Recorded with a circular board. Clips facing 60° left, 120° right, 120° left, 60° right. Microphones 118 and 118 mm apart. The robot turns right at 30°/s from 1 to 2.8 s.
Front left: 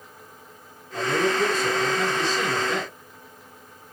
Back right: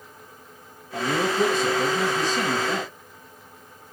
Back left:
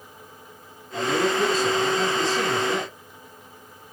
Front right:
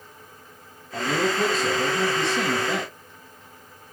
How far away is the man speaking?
About 4 m.